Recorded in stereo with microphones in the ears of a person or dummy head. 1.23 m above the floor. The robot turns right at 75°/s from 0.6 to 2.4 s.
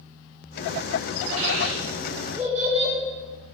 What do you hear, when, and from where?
1.4 s a child speaking: 80° right, 1.9 m; by 3.0 s 10° right (ahead or behind), 1.9 m